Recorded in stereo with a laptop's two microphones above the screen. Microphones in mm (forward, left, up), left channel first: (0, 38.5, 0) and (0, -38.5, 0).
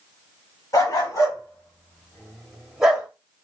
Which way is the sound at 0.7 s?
50° left (ahead or behind).